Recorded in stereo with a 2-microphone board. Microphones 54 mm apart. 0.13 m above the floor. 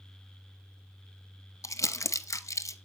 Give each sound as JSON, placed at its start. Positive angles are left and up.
{"t": 1.6, "sound": "crumpling", "side_deg": 65, "distance_m": 0.7}